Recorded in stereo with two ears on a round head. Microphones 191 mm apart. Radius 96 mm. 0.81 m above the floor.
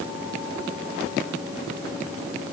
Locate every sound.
Only background noise.